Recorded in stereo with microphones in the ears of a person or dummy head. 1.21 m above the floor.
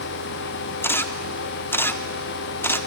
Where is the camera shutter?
10° left (ahead or behind), 0.5 m.